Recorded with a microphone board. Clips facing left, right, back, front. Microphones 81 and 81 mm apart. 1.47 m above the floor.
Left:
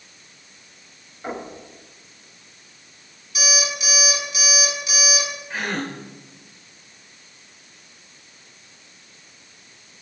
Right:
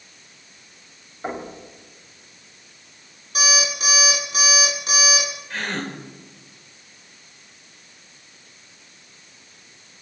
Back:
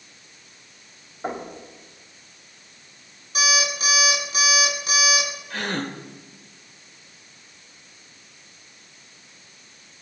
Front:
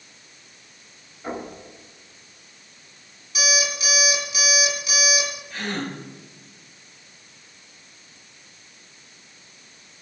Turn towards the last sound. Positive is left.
turn(degrees=170)